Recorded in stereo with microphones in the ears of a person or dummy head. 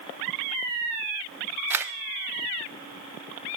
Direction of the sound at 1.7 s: 15° right (ahead or behind).